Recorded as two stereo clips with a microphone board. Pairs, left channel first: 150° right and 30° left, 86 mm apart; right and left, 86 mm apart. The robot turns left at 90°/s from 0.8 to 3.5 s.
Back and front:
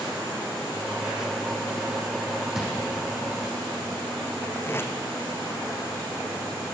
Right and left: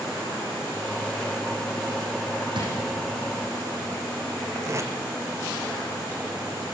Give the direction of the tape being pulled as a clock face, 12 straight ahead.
7 o'clock.